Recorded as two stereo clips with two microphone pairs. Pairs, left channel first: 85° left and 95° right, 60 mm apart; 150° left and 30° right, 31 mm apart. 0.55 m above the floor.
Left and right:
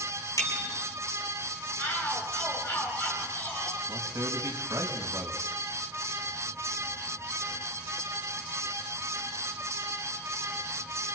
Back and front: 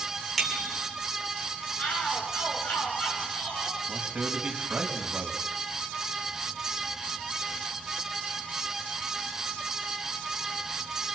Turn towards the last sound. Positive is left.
turn(degrees=-80)